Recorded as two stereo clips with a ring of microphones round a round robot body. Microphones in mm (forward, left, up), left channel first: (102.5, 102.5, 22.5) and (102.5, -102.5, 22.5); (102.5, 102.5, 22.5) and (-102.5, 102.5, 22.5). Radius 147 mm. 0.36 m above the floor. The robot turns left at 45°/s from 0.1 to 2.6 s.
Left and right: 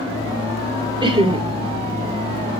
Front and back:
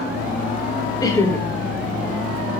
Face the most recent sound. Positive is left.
turn(degrees=-125)